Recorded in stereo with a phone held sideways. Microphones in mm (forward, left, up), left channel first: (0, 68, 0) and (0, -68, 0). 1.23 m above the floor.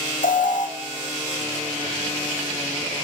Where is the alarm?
80° left, 0.8 m.